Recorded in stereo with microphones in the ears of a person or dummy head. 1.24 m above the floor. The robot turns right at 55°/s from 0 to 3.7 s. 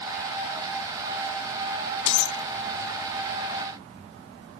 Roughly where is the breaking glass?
Left.